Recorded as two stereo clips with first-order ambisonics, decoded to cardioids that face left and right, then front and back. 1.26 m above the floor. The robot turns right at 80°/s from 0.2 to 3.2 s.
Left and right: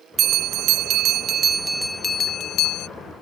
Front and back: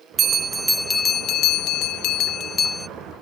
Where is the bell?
130° right; by 2.9 s 85° left.